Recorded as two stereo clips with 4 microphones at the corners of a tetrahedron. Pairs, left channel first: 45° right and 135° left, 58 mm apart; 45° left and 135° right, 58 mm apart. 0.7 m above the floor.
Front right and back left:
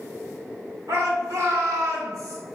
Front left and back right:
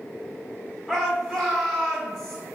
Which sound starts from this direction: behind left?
A shout, at 0.9 s.